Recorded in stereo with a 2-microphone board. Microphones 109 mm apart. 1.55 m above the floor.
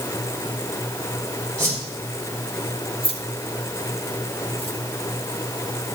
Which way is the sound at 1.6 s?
20° right (ahead or behind).